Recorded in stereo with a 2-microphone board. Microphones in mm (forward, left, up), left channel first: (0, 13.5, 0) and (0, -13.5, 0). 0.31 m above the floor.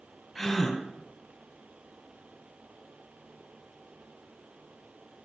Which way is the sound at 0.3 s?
5° left (ahead or behind).